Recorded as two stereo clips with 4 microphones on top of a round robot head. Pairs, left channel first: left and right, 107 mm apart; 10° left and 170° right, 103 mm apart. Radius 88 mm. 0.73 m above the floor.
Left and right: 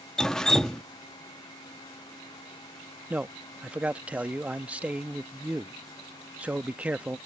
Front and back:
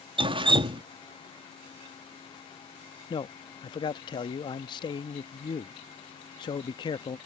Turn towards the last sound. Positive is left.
turn(degrees=-15)